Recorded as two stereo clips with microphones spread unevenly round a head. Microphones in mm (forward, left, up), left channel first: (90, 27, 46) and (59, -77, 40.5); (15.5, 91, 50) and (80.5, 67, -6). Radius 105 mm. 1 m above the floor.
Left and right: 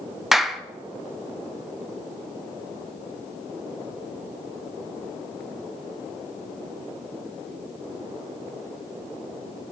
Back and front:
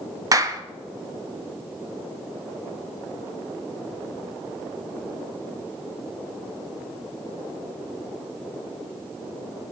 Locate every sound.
0.3 s a clap: 20° right, 1.3 m